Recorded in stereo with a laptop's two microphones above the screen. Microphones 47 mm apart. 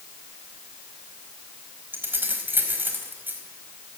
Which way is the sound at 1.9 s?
45° right (ahead or behind).